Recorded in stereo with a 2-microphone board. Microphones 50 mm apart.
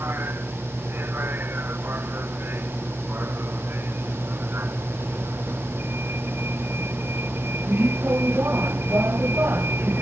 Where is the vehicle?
45° right (ahead or behind).